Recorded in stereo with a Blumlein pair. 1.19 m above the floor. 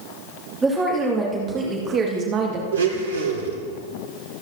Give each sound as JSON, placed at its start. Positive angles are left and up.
{"t": 0.6, "sound": "a woman speaking", "azimuth_deg": -15, "distance_m": 3.0}
{"t": 2.7, "sound": "a blender", "azimuth_deg": -65, "distance_m": 1.7}